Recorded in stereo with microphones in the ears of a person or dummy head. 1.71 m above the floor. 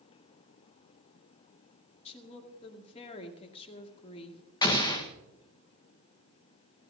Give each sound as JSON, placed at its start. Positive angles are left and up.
{"t": 2.0, "sound": "a woman speaking", "side_deg": 35, "distance_m": 2.5}
{"t": 4.6, "sound": "an explosion", "side_deg": 25, "distance_m": 1.4}